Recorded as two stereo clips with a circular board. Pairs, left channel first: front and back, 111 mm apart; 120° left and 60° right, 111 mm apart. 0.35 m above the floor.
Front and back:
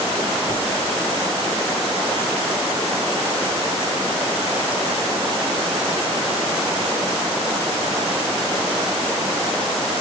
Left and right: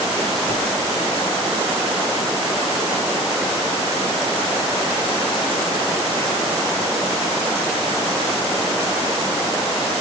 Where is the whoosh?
60° right, 1.4 m.